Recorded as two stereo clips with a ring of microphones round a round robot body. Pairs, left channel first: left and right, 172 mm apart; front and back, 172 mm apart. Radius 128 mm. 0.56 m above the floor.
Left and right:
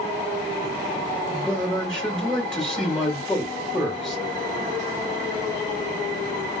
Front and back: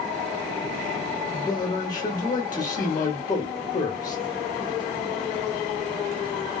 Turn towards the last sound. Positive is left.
turn(degrees=5)